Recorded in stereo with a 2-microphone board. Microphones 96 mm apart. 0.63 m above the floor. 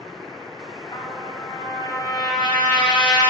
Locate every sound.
0.9 s a trumpet: 50° left (ahead or behind), 2.5 m